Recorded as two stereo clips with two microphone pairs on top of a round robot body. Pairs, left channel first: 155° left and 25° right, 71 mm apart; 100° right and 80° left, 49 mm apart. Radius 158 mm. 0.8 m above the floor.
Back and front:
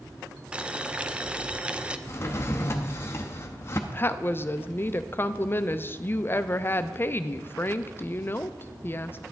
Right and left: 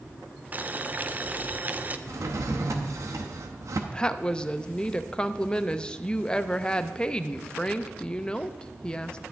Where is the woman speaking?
165° right, 0.6 m.